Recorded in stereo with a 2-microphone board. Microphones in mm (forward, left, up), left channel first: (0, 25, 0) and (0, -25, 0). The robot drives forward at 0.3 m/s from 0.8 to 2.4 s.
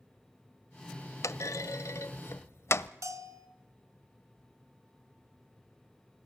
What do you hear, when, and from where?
1.2 s a clunk: 80° left, 0.7 m; by 2.9 s 60° left (ahead or behind), 0.7 m
3.0 s a bell: 85° right, 1.9 m